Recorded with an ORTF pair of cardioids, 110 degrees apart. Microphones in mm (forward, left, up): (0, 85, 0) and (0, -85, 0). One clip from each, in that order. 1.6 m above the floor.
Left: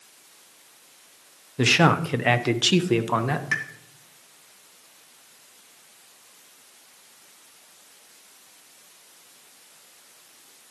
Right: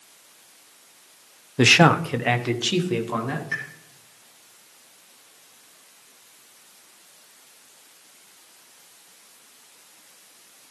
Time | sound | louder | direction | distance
1.6 | a man speaking | right 4 dB | 30° right | 0.7 m
3.5 | a pop | left 3 dB | 50° left | 2 m